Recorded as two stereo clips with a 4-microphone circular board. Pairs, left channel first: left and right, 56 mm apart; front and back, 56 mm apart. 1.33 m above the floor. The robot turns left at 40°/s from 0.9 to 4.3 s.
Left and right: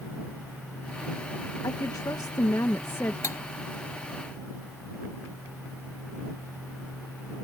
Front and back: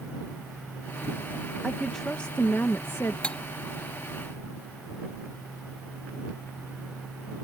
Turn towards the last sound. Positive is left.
turn(degrees=25)